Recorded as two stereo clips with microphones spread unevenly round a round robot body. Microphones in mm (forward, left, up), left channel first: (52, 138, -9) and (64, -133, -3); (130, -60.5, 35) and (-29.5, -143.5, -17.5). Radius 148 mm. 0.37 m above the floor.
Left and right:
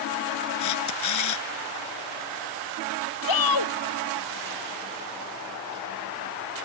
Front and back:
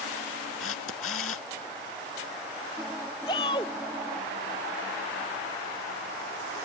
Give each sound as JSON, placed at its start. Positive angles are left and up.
{"t": 0.6, "sound": "a camera shutter", "azimuth_deg": 80}
{"t": 3.3, "sound": "a shout", "azimuth_deg": 105}